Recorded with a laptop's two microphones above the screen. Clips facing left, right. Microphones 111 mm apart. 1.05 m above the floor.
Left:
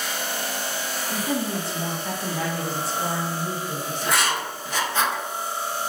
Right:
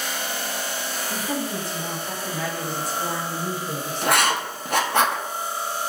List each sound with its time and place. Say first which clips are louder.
1.1 s a woman speaking: left 2 dB; 75° left (ahead or behind), 1.9 m; by 4.4 s 60° right (ahead or behind), 1.2 m
4.0 s writing: right 4 dB; 60° right (ahead or behind), 0.6 m